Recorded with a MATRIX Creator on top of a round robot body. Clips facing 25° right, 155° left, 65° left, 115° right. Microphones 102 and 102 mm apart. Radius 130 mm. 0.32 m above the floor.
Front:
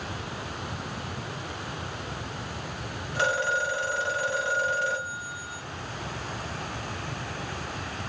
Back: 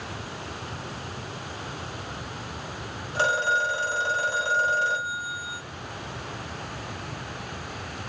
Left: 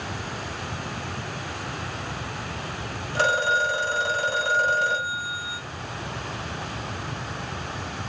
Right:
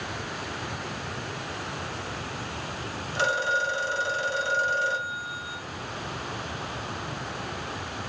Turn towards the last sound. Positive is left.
turn(degrees=100)